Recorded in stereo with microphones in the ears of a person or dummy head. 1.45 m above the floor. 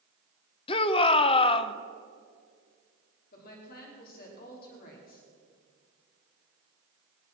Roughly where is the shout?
Left.